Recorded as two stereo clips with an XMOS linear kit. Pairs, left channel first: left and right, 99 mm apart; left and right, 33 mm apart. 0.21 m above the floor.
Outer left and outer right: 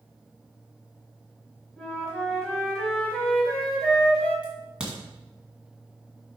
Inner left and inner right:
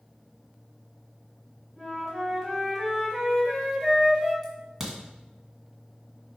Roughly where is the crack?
Centre.